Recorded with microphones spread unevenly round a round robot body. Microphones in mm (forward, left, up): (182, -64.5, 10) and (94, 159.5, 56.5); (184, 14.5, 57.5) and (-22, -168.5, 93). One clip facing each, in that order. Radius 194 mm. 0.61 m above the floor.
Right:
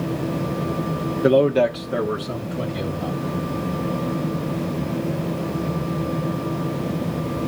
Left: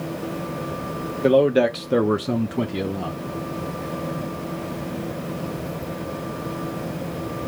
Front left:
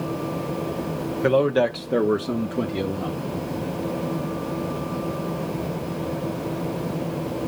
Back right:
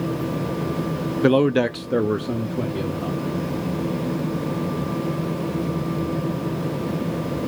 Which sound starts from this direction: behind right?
A man speaking, at 1.2 s.